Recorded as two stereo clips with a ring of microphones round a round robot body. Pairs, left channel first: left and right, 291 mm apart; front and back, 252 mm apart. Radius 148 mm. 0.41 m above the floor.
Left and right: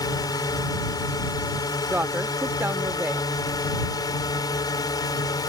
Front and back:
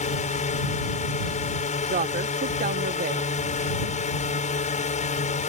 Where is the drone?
25° left.